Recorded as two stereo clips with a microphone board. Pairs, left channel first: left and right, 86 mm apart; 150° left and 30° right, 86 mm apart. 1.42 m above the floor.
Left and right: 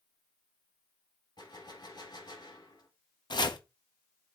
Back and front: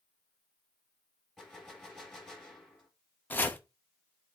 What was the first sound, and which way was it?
A gunshot, 65° left.